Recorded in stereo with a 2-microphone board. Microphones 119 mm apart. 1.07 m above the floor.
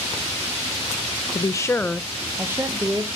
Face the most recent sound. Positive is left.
turn(degrees=-35)  # may be behind; listen again after turning